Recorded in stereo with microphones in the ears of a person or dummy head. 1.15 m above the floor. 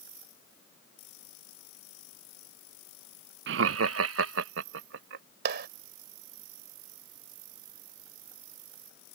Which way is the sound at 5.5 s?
65° right (ahead or behind).